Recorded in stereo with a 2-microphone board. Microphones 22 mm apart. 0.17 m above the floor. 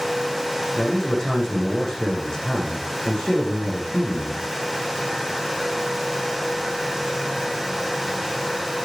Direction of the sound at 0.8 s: 35° left (ahead or behind).